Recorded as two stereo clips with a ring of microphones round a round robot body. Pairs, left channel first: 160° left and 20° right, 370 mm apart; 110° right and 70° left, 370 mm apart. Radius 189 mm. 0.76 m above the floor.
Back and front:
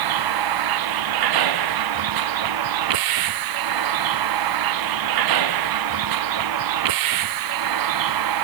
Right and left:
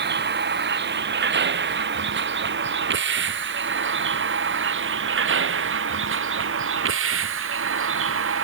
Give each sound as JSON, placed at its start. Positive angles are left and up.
{"t": 0.0, "sound": "a vehicle", "azimuth_deg": 5}